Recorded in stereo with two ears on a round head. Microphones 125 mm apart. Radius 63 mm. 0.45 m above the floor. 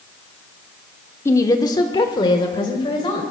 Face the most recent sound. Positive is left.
turn(degrees=35)  # may be behind; listen again after turning